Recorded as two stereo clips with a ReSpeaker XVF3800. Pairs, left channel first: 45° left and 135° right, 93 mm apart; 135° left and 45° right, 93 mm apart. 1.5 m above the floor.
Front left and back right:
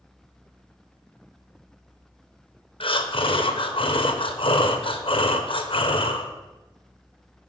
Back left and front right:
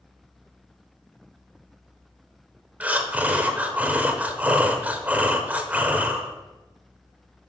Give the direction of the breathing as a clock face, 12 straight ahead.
11 o'clock.